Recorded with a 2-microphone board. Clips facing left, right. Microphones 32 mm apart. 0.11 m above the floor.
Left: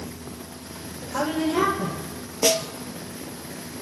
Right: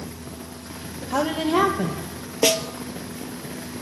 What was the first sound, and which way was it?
A woman speaking, 65° right (ahead or behind).